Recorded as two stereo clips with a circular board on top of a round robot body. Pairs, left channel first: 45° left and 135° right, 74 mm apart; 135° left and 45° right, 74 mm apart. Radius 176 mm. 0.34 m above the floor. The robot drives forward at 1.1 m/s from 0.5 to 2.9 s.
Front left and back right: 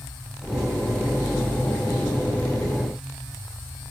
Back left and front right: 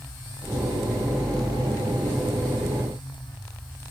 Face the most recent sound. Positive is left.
No sound to turn to.